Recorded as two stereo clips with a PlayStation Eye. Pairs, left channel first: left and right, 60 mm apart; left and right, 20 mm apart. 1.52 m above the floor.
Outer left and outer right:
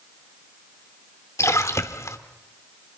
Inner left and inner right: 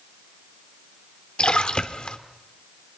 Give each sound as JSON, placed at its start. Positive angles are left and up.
{"t": 1.4, "sound": "a splash", "side_deg": 50, "distance_m": 1.6}